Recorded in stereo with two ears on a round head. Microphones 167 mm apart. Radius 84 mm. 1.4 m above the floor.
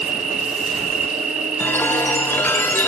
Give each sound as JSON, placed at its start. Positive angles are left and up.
{"t": 0.0, "sound": "an insect", "side_deg": -40, "distance_m": 1.8}
{"t": 1.6, "sound": "a chime", "side_deg": 10, "distance_m": 1.2}